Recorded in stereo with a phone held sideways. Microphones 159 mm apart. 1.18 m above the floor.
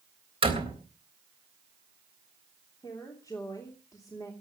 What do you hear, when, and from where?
0.4 s a door slam: 35° right (ahead or behind), 3.5 m
2.8 s a woman speaking: 20° left (ahead or behind), 3 m